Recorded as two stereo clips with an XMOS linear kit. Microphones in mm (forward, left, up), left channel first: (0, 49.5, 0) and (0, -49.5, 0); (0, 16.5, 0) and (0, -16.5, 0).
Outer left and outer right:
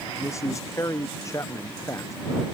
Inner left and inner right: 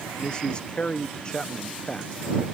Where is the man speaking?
30° left (ahead or behind).